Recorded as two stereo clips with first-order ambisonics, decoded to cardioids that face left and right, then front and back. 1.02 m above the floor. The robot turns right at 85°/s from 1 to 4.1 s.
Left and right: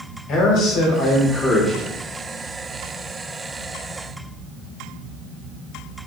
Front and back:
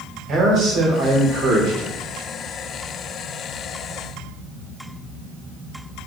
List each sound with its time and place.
0.3 s a man speaking: 125° left, 1.3 m; by 2.0 s 150° right, 1.3 m